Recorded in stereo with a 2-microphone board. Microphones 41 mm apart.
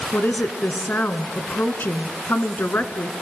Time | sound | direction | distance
0.1 | a woman speaking | 55° left (ahead or behind) | 1.6 m